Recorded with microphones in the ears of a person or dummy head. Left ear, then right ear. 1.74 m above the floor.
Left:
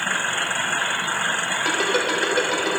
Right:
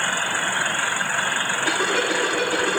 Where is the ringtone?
45° left (ahead or behind), 4.5 m.